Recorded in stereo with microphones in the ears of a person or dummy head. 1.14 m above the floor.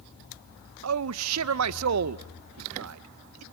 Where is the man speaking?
85° right, 0.5 m.